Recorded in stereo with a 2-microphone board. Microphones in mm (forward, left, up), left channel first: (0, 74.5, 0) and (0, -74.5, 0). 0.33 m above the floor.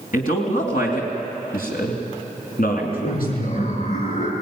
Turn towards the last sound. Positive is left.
turn(degrees=50)  # may be behind; listen again after turning